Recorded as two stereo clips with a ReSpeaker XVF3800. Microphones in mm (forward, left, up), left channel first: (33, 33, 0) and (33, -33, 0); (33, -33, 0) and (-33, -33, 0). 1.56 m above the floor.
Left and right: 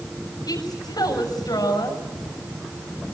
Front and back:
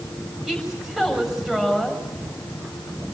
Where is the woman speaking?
95° left, 6.5 m.